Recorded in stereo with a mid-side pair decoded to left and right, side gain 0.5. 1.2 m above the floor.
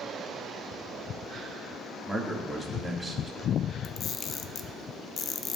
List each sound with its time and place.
2.1 s a man speaking: 15° right, 1.8 m
3.8 s a camera shutter: 50° left, 0.6 m